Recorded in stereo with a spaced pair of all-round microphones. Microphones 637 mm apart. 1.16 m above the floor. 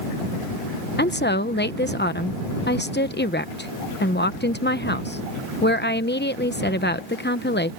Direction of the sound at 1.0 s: 15° left (ahead or behind).